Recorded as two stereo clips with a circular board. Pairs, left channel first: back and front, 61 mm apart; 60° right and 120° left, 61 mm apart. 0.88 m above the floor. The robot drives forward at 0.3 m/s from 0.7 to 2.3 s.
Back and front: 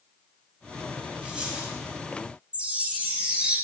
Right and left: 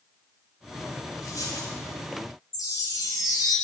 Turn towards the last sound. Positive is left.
turn(degrees=-70)